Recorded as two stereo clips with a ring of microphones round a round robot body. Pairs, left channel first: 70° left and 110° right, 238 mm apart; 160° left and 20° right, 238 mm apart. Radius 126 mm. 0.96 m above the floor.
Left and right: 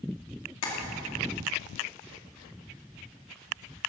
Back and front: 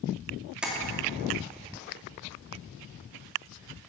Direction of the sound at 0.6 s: 65° left.